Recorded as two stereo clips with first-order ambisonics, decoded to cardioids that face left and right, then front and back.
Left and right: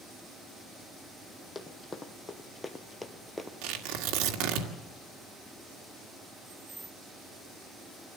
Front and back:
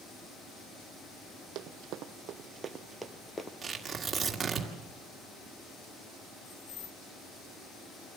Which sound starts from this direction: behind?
Running footsteps, at 1.6 s.